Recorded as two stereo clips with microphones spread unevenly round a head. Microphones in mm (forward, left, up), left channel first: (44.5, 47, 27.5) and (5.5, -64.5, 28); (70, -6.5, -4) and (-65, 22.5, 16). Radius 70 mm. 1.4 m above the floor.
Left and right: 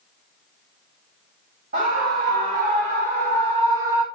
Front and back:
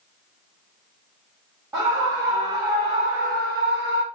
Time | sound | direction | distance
1.7 | a scream | 115° right | 3.5 m